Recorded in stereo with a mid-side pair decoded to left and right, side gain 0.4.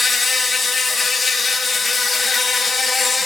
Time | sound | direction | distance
0.0 | an insect | 35° left | 1.7 m